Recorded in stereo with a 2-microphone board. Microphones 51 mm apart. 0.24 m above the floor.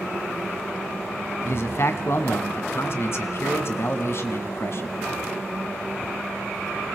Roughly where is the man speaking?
Left.